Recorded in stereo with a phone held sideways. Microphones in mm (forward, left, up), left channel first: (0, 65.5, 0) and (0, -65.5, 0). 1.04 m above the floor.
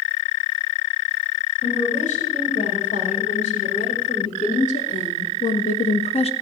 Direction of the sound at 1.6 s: 75° left (ahead or behind).